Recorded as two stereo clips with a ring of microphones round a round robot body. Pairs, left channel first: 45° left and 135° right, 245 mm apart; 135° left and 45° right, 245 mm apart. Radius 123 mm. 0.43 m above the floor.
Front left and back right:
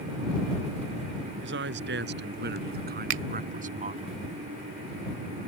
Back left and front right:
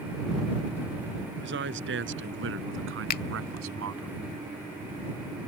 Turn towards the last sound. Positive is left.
turn(degrees=-175)